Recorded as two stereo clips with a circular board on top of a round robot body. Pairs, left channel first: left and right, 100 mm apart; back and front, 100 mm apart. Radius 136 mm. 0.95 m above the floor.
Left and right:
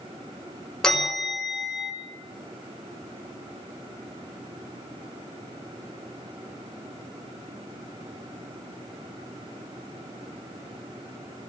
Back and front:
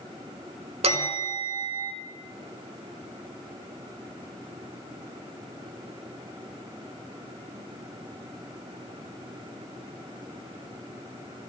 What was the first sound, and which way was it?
A bell, 5° left.